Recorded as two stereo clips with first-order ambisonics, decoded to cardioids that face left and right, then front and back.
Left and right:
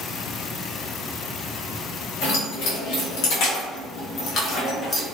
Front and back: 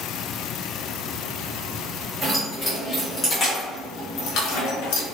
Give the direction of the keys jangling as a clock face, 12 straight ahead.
9 o'clock.